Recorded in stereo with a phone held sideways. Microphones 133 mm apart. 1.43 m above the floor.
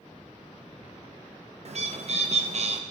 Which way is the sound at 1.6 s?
55° right (ahead or behind).